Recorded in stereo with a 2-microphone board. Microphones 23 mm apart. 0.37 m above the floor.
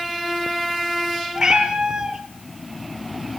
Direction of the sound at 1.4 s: 30° right (ahead or behind).